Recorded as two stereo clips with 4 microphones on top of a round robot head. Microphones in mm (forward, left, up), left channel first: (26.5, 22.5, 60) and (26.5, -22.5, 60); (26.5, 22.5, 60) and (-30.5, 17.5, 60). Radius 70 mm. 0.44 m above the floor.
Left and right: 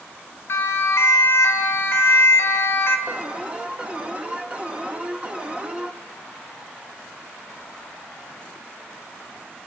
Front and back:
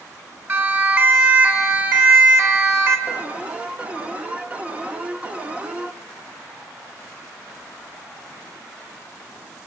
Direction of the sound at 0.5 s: 130° left.